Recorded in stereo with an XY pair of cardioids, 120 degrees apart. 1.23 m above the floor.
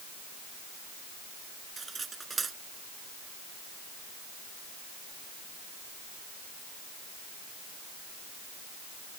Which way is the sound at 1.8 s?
25° right.